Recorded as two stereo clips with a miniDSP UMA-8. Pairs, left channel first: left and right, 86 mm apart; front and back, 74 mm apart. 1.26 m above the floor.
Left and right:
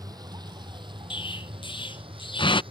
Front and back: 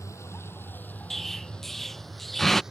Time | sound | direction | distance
0.0 | a vehicle | 45° right | ?
1.1 | an explosion | 85° left | ?